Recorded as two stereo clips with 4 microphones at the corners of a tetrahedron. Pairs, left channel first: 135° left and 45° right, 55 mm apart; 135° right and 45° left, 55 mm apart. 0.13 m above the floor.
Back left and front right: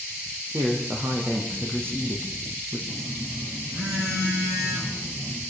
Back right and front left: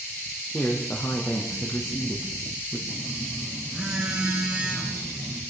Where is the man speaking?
85° right, 5 m; by 2.8 s 90° right, 4 m.